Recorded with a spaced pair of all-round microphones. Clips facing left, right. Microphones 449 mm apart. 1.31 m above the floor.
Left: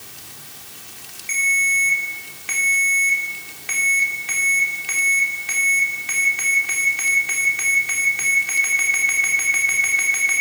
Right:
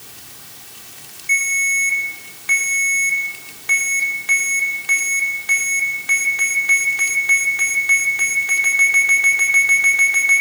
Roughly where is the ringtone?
Left.